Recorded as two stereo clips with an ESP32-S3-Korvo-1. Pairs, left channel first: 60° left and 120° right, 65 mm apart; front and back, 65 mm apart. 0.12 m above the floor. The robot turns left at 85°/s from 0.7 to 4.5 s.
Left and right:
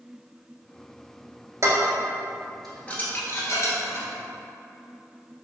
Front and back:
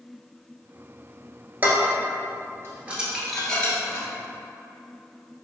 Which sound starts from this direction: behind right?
Dishes clattering, at 1.6 s.